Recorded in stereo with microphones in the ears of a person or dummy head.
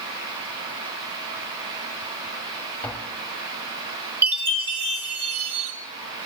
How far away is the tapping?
About 2.0 m.